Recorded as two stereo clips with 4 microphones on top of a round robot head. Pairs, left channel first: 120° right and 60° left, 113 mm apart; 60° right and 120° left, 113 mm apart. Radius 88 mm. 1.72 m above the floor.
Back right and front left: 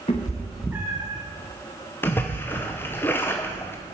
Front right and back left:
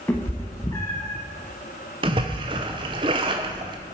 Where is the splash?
165° left, 0.8 m.